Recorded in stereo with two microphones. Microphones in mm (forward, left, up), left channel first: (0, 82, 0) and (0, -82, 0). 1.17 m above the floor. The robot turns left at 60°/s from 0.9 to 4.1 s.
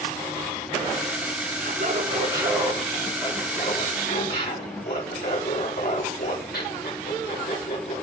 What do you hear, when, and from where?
1.6 s laughter: 115° right, 3.5 m; by 8.0 s 95° left, 3.5 m